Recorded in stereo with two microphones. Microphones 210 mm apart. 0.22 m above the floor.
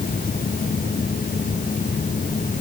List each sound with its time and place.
Only background noise.